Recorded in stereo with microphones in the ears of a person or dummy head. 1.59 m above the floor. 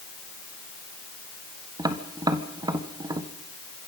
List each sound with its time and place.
1.8 s tapping: 10° right (ahead or behind), 1.4 m